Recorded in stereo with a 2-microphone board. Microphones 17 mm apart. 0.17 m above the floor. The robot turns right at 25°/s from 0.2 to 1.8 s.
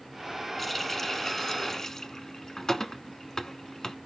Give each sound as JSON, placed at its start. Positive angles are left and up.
{"t": 0.6, "sound": "a running tap", "side_deg": 10, "distance_m": 1.2}